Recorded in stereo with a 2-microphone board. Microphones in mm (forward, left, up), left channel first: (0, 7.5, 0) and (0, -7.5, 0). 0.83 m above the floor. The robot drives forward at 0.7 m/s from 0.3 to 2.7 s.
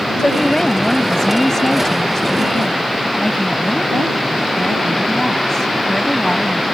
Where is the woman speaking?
25° left (ahead or behind); by 6.7 s 20° left (ahead or behind).